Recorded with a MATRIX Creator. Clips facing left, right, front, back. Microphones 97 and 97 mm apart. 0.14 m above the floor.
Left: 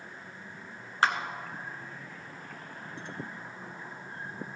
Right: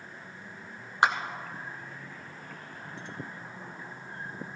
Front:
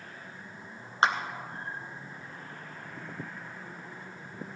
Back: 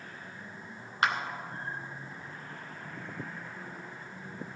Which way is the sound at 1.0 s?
30° right.